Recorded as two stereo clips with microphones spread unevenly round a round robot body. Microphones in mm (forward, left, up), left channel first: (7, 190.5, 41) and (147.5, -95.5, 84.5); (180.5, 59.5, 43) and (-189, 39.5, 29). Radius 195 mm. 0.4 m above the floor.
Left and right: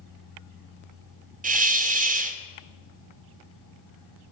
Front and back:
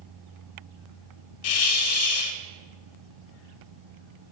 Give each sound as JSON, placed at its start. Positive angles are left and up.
{"t": 1.4, "sound": "a hiss", "azimuth_deg": 0, "distance_m": 0.6}